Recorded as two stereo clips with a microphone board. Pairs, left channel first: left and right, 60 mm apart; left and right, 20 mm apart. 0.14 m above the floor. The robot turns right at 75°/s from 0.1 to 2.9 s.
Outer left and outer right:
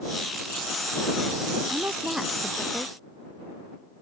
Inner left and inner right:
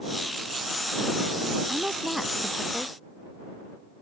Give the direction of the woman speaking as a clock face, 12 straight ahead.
2 o'clock.